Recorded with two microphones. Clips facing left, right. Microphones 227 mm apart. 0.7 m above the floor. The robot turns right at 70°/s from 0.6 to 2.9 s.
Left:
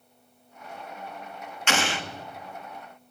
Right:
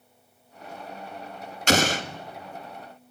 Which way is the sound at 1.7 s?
40° right (ahead or behind).